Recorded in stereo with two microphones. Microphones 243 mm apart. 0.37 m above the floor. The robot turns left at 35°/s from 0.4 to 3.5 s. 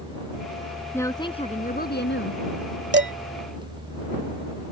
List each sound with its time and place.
0.9 s a woman speaking: 170° left; by 2.4 s 120° left
2.9 s dishes clattering: 50° right (ahead or behind)